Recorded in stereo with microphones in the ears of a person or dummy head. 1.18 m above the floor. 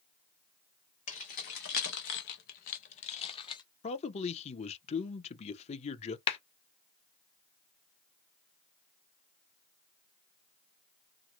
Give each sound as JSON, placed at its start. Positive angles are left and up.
{"t": 1.1, "sound": "keys jangling", "side_deg": 35, "distance_m": 0.9}
{"t": 3.8, "sound": "a man speaking", "side_deg": 35, "distance_m": 0.6}
{"t": 6.3, "sound": "a clap", "side_deg": 30, "distance_m": 1.1}